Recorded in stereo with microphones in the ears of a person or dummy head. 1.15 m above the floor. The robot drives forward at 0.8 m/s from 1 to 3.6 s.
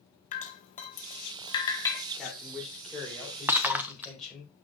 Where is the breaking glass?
10° right (ahead or behind), 0.5 m.